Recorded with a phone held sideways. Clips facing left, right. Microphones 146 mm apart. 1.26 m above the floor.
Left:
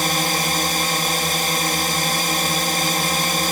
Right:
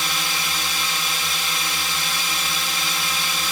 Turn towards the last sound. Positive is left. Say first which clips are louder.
# left 7 dB
turn(degrees=50)  # may be behind; listen again after turning